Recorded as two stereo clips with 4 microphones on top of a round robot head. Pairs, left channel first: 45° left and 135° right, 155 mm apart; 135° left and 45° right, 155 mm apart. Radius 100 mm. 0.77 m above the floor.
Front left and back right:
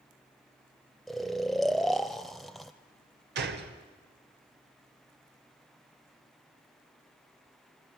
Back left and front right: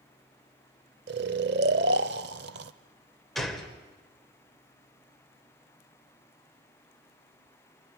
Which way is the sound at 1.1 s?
45° right.